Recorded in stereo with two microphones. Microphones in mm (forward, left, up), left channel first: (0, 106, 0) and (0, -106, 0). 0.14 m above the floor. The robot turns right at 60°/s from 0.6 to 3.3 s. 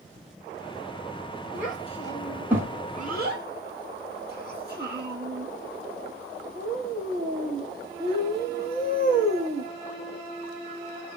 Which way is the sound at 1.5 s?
45° left (ahead or behind).